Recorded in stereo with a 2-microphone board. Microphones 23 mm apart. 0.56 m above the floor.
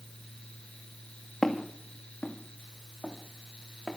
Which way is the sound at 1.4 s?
15° left (ahead or behind).